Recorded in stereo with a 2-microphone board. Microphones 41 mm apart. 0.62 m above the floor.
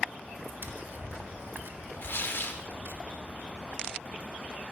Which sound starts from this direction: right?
Tapping, at 0.6 s.